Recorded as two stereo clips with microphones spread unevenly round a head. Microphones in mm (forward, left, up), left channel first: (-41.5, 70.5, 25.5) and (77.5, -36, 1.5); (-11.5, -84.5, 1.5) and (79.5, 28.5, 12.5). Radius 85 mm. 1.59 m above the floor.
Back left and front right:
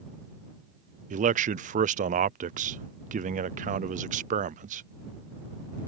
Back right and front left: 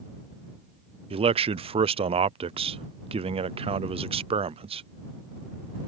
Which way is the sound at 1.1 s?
Straight ahead.